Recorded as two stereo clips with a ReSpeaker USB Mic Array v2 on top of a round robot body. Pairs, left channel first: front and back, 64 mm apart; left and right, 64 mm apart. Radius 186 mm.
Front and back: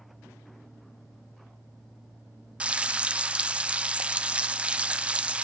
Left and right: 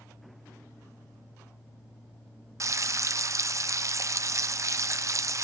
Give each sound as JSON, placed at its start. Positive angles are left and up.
{"t": 2.6, "sound": "frying", "azimuth_deg": -110, "distance_m": 0.7}